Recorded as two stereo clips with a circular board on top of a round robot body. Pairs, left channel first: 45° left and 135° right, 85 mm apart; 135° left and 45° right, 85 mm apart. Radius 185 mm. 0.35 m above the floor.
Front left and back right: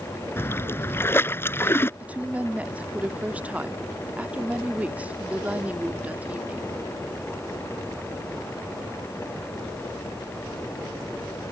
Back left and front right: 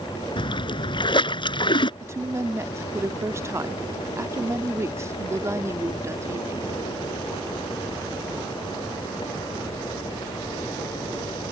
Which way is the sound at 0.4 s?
110° left.